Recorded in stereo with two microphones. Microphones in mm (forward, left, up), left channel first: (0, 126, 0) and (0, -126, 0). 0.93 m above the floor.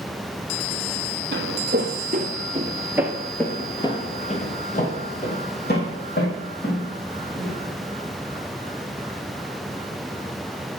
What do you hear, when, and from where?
1.3 s footsteps: 45° right (ahead or behind), 1.4 m; by 7.6 s 45° left (ahead or behind), 3 m